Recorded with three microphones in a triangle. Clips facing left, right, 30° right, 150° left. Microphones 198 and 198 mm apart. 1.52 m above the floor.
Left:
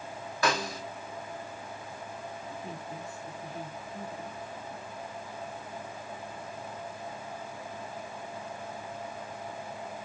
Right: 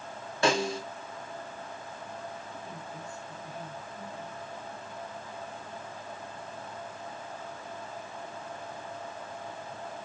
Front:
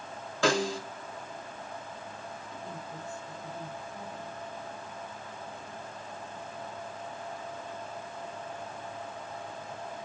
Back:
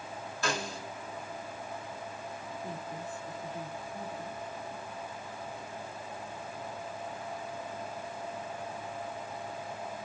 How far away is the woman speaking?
About 9 m.